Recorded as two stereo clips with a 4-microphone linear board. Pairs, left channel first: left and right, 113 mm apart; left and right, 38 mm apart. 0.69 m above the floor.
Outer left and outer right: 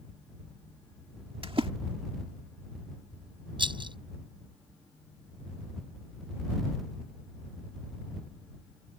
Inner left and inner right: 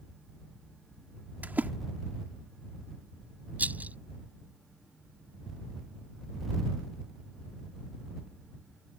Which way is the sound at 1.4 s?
55° right (ahead or behind).